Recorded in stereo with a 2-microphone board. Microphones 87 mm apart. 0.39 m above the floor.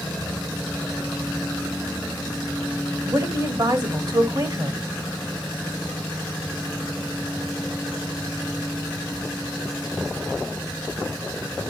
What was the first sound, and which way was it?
A woman speaking, 55° right (ahead or behind).